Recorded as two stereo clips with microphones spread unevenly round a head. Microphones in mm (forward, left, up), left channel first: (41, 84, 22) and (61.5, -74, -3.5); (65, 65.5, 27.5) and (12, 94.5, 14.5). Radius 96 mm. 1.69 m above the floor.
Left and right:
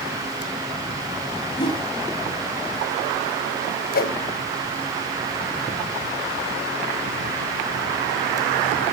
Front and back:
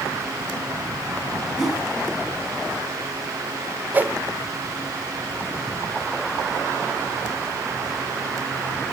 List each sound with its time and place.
1.6 s a whoosh: 50° left, 2.5 m
3.9 s a whoosh: 85° left, 1.4 m